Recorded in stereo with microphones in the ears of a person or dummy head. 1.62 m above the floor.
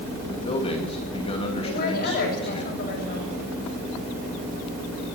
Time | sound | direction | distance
0.3 | a man speaking | 25° left (ahead or behind) | 2.5 m
1.6 | a woman speaking | 60° left (ahead or behind) | 6.5 m